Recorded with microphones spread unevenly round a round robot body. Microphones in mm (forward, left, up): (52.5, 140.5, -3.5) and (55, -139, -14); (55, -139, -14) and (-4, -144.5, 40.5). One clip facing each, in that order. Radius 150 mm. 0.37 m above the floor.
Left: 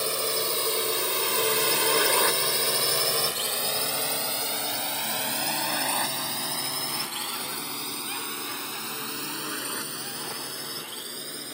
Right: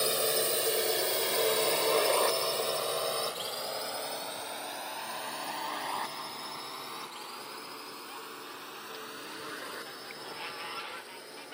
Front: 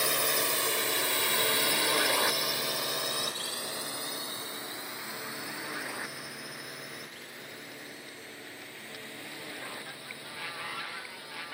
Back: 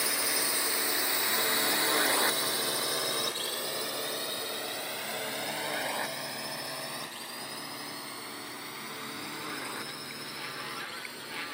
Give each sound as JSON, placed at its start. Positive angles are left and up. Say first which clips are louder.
{"t": 0.0, "sound": "a drone", "louder": "even, front 3 dB", "azimuth_deg": 5}